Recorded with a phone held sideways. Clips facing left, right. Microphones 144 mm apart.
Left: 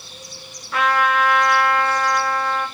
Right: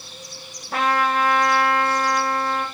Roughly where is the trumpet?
Right.